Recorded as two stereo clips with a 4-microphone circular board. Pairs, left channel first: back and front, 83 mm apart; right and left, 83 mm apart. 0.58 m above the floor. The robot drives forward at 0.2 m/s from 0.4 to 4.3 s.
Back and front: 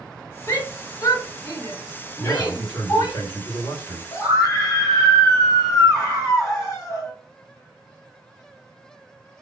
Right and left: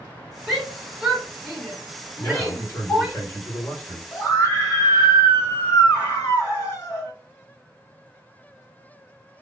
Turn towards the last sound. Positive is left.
turn(degrees=-135)